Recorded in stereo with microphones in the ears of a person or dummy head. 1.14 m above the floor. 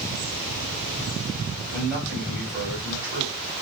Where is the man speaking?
10° right (ahead or behind), 3.5 m.